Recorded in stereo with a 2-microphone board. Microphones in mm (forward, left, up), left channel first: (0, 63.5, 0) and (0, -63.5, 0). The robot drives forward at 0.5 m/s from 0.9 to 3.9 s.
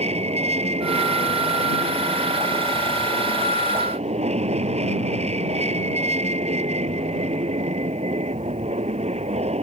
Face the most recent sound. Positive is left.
turn(degrees=-60)  # may be behind; listen again after turning